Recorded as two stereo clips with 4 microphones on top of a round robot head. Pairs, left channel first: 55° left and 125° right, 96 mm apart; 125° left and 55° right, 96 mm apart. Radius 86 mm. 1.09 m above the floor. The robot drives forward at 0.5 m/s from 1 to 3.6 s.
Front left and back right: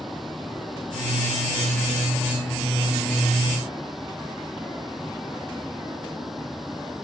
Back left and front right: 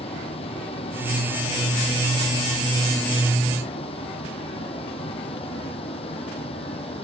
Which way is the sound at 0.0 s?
150° left.